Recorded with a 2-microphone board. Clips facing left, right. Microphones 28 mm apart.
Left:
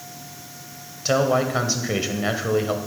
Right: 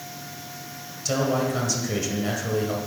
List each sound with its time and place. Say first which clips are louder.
1.1 s a man speaking: left 4 dB; 35° left (ahead or behind), 1.4 m